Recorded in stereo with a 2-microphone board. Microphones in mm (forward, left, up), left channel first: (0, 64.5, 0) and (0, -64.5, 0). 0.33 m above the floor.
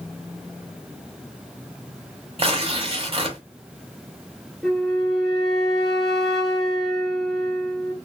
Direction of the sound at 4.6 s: 5° left (ahead or behind).